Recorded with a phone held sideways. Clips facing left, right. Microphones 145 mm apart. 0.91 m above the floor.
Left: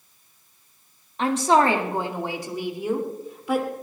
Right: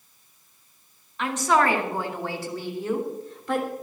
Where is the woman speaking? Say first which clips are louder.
Left 3 dB; 35° left (ahead or behind), 1.8 m; by 3.7 s 5° left (ahead or behind), 3 m.